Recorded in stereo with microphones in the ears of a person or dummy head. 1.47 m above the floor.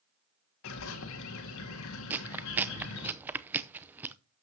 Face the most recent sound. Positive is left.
turn(degrees=-10)  # may be behind; listen again after turning